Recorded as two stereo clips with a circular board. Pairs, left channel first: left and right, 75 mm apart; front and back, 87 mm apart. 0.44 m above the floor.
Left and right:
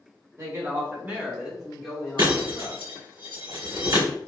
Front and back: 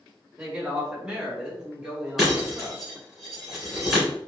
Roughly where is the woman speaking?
Right.